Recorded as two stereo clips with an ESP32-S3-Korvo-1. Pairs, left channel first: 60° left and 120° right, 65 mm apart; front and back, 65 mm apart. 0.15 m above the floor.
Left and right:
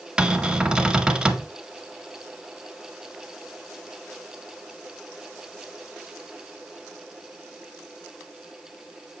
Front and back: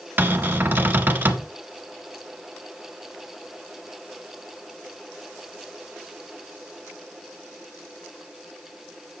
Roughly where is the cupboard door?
Behind.